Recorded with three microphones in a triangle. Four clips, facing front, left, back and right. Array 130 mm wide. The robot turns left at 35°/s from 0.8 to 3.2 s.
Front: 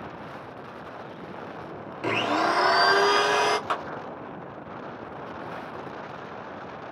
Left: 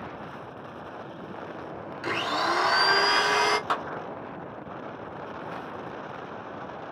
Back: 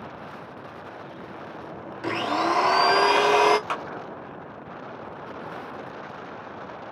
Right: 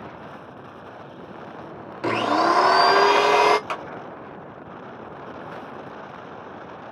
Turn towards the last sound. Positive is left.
turn(degrees=65)